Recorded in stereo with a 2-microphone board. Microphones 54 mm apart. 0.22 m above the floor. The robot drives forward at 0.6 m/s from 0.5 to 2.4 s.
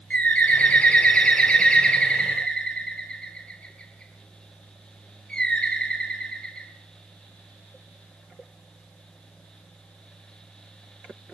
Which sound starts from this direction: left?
A bird, at 0.1 s.